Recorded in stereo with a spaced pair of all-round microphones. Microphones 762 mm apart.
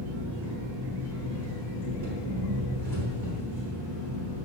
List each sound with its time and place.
0.0 s an engine running: 85° right, 3.5 m